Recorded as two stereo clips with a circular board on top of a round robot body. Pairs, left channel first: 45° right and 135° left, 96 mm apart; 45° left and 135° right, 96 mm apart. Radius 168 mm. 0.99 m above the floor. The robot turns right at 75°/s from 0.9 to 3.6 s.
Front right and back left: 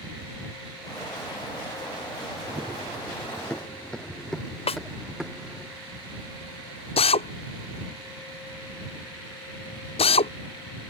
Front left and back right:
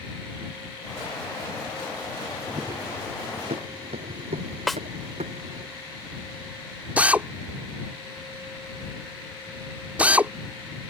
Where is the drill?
60° right.